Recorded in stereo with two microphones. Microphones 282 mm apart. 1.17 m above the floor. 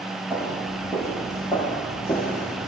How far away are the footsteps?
About 2 m.